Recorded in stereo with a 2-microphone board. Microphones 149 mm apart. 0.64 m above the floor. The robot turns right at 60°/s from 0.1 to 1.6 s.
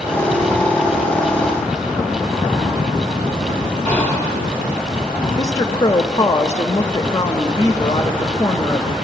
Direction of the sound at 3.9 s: 15° left (ahead or behind).